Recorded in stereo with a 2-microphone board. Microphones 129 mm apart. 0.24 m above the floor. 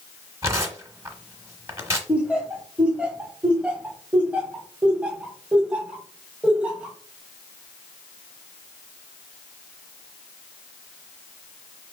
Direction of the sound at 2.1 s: 10° right (ahead or behind).